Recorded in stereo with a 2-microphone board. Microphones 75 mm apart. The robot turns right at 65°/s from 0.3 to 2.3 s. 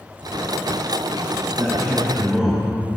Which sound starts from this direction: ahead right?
A man speaking, at 1.6 s.